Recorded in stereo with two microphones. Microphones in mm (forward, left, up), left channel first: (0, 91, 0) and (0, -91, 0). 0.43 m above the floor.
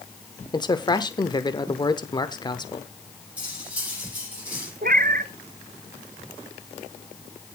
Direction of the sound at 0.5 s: 25° left (ahead or behind).